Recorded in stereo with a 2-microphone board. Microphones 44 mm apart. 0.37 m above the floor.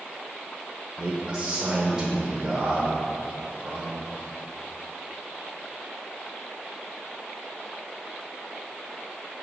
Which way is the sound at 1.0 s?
20° right (ahead or behind).